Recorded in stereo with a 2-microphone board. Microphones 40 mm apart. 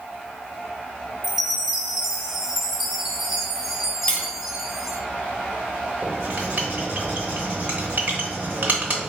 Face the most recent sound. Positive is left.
turn(degrees=-50)  # may be behind; listen again after turning